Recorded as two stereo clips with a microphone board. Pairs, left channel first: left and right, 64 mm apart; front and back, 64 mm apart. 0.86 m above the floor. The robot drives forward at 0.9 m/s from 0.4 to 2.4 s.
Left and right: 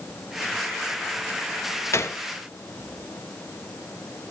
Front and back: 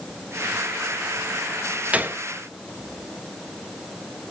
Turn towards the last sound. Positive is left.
turn(degrees=145)